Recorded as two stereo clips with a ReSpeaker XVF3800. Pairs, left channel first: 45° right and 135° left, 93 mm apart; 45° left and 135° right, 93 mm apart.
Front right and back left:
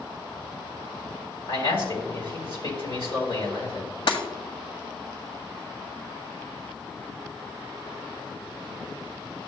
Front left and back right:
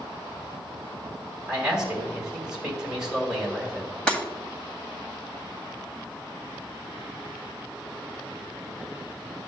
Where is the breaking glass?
35° right, 1.4 m.